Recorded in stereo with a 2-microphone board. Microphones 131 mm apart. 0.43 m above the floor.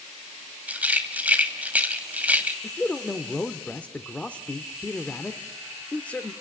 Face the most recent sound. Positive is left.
turn(degrees=10)  # may be behind; listen again after turning